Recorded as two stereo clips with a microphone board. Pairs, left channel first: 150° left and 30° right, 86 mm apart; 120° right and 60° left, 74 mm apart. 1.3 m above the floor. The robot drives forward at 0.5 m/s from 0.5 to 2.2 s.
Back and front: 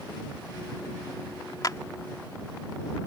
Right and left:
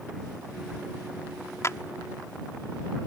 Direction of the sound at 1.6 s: 165° right.